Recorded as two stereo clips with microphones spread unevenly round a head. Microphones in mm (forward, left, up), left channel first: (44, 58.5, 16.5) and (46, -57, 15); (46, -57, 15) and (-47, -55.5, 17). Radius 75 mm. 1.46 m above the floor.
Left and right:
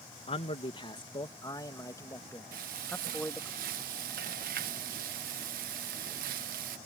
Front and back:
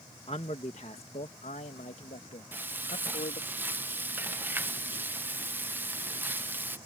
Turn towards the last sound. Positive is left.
turn(degrees=-110)